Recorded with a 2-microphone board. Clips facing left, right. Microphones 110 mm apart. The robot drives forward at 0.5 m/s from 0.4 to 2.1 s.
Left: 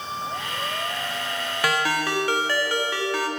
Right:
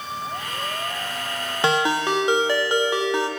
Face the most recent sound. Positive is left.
turn(degrees=-20)  # may be behind; listen again after turning